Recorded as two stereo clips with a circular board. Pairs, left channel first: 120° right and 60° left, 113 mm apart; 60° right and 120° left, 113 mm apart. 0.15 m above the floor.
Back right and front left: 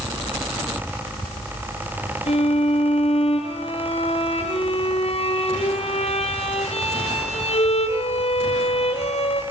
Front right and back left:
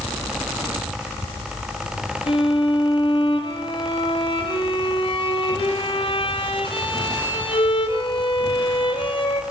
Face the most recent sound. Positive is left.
turn(degrees=-100)